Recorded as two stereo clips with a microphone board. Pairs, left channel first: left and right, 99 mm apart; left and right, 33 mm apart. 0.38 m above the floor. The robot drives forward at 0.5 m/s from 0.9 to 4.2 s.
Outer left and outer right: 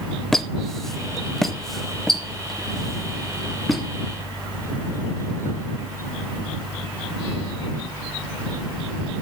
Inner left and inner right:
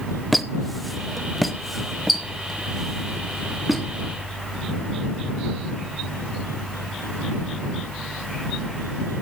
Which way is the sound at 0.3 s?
5° left (ahead or behind).